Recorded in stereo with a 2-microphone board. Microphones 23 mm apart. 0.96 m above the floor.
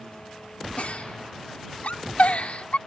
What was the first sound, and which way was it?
A giggle, 75° left (ahead or behind).